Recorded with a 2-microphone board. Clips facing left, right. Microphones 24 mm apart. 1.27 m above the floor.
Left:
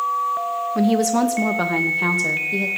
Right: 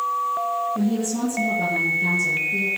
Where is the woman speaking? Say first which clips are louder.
Left 6 dB; 60° left (ahead or behind), 1.5 m; by 2.7 s 75° left (ahead or behind), 2.0 m.